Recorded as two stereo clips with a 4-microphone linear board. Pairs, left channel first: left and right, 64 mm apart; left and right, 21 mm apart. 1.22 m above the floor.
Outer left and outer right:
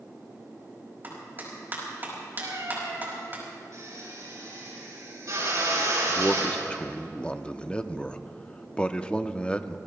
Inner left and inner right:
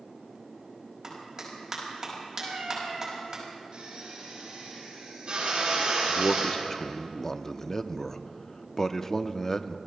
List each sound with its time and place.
1.0 s a clap: 35° right (ahead or behind), 5 m
2.4 s a cat meowing: 75° right (ahead or behind), 7 m
3.7 s a drill: 60° right (ahead or behind), 7.5 m
6.1 s a man speaking: 15° left (ahead or behind), 0.6 m